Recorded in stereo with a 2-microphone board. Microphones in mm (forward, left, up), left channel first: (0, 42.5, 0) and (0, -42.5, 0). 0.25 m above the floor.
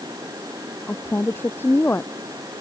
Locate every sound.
0.9 s a woman speaking: 25° left (ahead or behind)